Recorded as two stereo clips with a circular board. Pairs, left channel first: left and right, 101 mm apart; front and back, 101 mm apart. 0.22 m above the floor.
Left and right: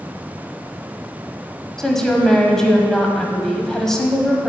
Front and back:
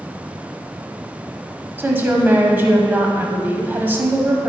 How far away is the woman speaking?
About 1.1 m.